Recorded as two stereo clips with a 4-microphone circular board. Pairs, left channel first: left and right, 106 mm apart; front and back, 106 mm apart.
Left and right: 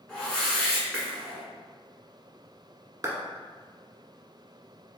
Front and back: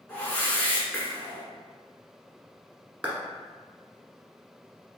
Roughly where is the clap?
Behind right.